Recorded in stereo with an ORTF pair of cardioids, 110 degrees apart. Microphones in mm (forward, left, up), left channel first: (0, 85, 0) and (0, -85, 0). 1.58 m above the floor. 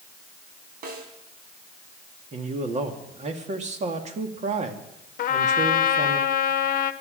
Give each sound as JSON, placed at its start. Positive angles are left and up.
{"t": 0.8, "sound": "a snare drum", "azimuth_deg": -60, "distance_m": 4.0}
{"t": 2.3, "sound": "a man speaking", "azimuth_deg": -40, "distance_m": 2.5}
{"t": 5.2, "sound": "a trumpet", "azimuth_deg": 50, "distance_m": 1.0}